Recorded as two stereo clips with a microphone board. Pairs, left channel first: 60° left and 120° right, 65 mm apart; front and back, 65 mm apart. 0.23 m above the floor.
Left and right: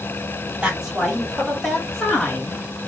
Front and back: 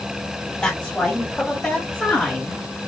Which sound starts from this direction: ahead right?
A woman speaking, at 0.6 s.